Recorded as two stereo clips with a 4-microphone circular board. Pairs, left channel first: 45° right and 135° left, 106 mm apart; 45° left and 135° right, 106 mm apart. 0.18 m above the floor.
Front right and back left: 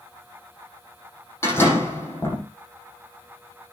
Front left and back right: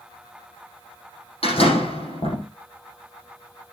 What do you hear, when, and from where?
1.4 s a door slam: 20° left, 6.5 m